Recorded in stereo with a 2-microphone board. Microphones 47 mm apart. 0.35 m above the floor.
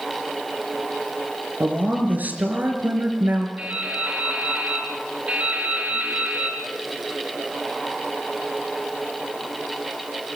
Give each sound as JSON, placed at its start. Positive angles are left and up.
{"t": 1.6, "sound": "a woman speaking", "side_deg": -40, "distance_m": 4.5}
{"t": 3.6, "sound": "dripping", "side_deg": -30, "distance_m": 5.5}